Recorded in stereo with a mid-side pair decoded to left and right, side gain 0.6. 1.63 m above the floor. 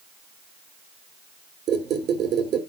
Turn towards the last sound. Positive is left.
turn(degrees=-55)